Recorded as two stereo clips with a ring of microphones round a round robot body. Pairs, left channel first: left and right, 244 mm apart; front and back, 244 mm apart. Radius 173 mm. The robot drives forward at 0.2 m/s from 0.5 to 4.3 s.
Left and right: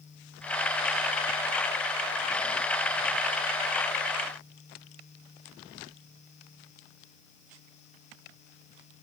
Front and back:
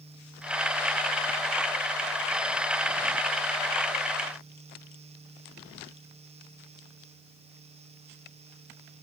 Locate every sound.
Only background noise.